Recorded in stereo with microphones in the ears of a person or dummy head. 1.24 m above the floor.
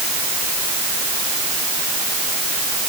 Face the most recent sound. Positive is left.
No sound to turn to.